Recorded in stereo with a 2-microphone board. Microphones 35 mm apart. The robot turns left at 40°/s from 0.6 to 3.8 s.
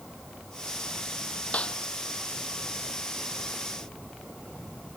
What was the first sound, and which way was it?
A snare drum, 40° left (ahead or behind).